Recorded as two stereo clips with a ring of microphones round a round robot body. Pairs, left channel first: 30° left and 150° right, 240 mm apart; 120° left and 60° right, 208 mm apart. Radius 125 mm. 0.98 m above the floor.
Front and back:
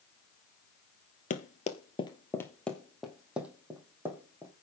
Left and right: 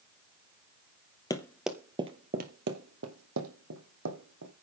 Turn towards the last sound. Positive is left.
turn(degrees=-70)